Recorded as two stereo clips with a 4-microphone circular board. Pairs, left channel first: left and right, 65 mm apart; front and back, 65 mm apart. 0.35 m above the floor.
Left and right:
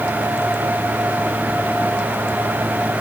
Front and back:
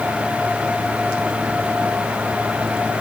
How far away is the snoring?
No snoring in this recording.